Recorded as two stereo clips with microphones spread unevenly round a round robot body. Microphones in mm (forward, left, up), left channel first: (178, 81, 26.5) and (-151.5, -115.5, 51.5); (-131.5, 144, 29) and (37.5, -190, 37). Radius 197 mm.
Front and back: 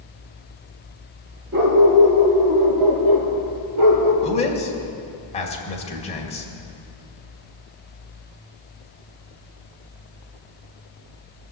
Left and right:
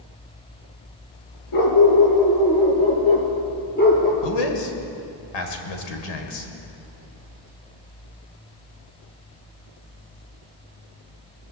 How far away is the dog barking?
About 3 m.